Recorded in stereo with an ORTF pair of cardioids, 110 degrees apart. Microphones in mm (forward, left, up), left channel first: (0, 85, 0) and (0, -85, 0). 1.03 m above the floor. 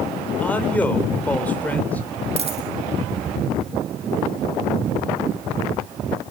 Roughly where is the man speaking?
Ahead.